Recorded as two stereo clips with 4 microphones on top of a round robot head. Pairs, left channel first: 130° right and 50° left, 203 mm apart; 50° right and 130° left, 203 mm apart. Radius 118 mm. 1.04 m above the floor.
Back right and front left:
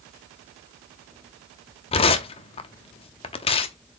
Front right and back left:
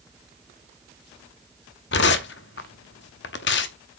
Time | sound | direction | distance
1.9 | tearing paper | 75° right | 0.7 m